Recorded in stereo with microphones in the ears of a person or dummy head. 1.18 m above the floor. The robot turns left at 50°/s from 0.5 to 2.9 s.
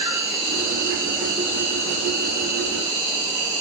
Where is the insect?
35° right, 1.6 m; by 3.6 s 155° right, 1.6 m.